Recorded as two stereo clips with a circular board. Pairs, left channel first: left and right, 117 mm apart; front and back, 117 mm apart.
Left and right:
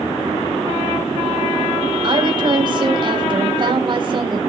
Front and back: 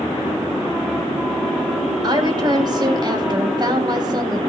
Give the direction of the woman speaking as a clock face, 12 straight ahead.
4 o'clock.